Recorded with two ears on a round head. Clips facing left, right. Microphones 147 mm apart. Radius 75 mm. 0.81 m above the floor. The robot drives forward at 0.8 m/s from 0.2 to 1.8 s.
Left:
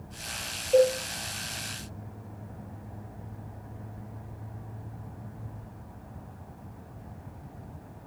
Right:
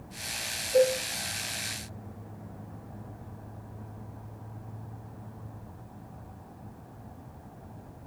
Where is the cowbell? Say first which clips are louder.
Left 2 dB; 75° left (ahead or behind), 4 m.